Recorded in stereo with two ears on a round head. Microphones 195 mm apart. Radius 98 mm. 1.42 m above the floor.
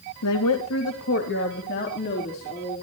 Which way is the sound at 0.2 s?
80° left.